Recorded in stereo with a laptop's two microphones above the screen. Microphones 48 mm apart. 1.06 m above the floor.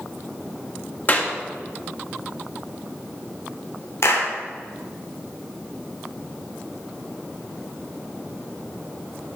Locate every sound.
1.1 s a clap: 35° left (ahead or behind), 1.4 m
4.0 s a clap: 60° left (ahead or behind), 2.5 m